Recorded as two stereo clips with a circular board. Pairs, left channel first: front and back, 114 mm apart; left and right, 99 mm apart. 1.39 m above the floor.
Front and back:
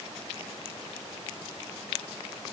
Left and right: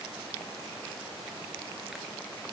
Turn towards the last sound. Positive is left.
No sound to turn to.